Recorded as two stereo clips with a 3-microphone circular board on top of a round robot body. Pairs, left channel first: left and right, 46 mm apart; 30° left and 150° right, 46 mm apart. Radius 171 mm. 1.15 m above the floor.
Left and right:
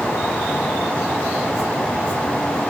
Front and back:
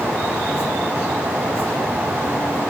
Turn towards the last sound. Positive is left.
No sound to turn to.